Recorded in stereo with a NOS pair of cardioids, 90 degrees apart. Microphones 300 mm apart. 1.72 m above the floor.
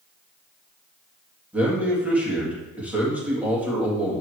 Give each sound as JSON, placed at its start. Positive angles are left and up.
{"t": 1.5, "sound": "a man speaking", "azimuth_deg": -5, "distance_m": 3.0}